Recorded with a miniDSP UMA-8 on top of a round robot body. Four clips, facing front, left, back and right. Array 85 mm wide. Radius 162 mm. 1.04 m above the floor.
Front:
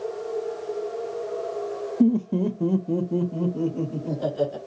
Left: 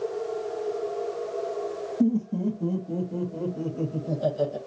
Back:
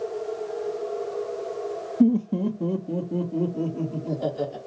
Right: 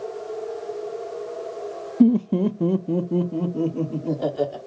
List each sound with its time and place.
2.0 s laughter: 90° right, 0.5 m; by 4.6 s 75° right, 3 m